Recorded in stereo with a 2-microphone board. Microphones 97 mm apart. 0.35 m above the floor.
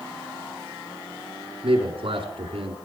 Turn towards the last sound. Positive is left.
turn(degrees=-70)  # may be behind; listen again after turning